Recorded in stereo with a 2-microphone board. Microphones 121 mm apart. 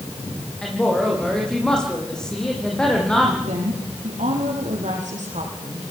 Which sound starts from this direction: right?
A woman speaking, at 3.5 s.